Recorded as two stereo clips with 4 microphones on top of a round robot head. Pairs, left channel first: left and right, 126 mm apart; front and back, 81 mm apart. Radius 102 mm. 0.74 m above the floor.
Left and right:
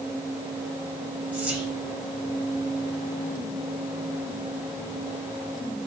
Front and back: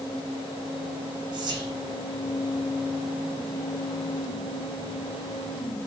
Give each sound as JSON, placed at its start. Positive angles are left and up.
{"t": 1.3, "sound": "whispering", "azimuth_deg": -170, "distance_m": 0.9}